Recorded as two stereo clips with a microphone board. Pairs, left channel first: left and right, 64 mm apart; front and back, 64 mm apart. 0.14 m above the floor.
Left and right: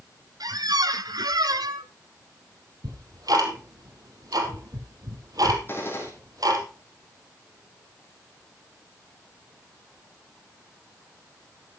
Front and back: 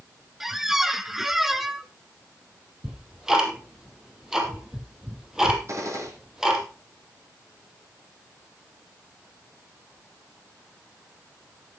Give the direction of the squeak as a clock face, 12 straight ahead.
3 o'clock.